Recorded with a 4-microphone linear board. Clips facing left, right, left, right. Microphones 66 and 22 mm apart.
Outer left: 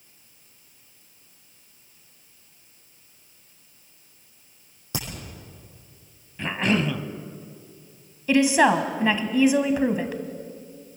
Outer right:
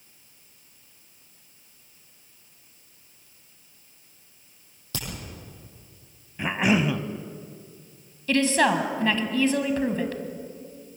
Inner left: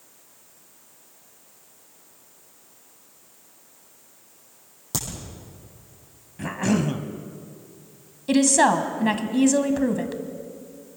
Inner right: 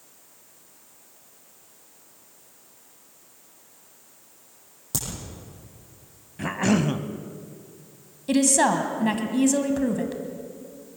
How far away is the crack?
About 7 m.